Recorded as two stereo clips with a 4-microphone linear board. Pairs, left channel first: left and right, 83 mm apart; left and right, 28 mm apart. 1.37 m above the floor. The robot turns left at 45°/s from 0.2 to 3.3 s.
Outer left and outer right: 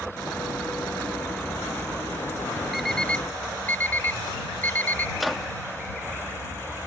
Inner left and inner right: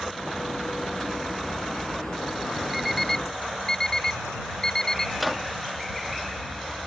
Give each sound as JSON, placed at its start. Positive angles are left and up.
{"t": 2.7, "sound": "an alarm clock", "side_deg": -5}
{"t": 5.2, "sound": "a microwave", "side_deg": 0}